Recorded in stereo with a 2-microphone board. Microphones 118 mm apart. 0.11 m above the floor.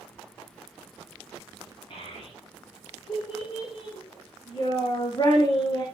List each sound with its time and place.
1.9 s a child speaking: 60° left (ahead or behind), 7.5 m; by 5.8 s 35° left (ahead or behind), 5.5 m